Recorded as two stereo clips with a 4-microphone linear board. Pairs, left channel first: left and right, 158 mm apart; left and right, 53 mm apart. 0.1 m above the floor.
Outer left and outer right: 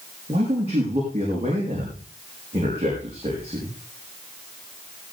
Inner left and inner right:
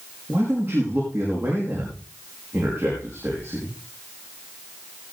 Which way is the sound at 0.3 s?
40° right (ahead or behind).